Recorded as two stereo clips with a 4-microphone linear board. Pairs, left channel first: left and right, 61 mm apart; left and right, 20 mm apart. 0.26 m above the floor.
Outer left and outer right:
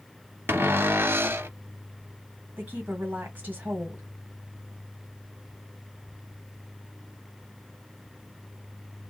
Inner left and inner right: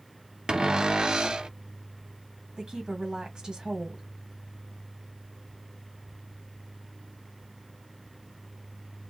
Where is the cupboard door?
40° right (ahead or behind), 0.6 m.